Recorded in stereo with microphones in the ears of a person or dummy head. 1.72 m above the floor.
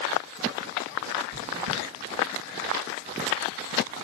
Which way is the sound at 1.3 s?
80° right.